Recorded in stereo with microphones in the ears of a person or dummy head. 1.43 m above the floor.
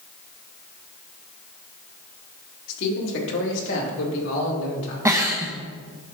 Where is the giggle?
10° right (ahead or behind), 0.9 m.